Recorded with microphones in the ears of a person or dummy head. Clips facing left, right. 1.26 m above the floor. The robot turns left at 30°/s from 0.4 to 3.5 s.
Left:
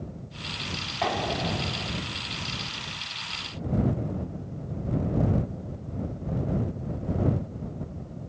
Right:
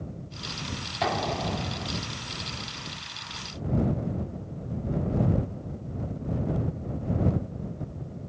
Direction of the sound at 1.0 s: Centre (ahead or behind).